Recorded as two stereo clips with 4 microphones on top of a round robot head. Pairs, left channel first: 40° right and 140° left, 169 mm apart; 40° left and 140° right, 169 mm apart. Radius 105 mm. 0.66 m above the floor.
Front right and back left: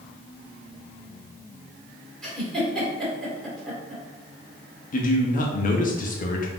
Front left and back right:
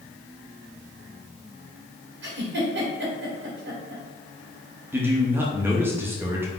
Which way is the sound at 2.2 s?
130° right.